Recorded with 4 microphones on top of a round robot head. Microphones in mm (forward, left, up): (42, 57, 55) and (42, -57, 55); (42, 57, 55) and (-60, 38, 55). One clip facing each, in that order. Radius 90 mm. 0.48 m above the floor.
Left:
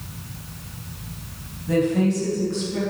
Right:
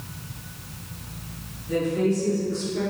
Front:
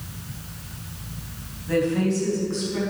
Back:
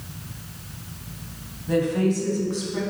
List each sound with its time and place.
1.7 s a woman speaking: 120° left, 3 m; by 2.8 s 115° left, 4 m